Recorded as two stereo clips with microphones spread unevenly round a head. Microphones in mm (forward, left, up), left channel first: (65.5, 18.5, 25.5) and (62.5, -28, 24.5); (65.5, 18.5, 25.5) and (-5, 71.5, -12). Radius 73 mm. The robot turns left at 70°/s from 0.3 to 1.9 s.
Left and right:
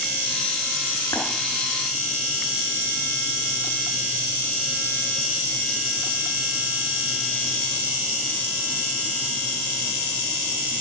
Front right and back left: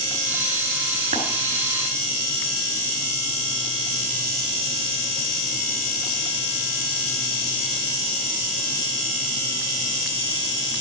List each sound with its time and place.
1.1 s tapping: 135° left, 3 m; by 1.2 s 125° left, 3 m